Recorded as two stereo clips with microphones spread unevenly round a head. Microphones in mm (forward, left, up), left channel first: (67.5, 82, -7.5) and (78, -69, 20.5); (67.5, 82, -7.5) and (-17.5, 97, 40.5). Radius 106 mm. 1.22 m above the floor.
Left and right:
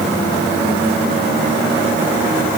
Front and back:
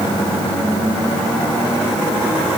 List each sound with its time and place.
Only background noise.